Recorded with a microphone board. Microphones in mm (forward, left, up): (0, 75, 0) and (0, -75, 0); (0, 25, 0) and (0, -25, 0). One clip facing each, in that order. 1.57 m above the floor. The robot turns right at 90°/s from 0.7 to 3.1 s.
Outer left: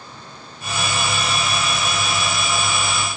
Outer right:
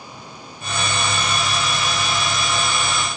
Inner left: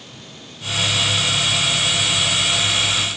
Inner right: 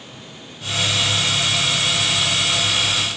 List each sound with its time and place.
Only background noise.